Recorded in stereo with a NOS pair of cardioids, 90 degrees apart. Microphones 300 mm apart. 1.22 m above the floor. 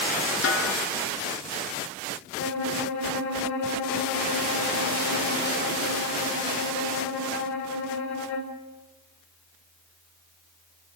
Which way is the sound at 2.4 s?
65° left.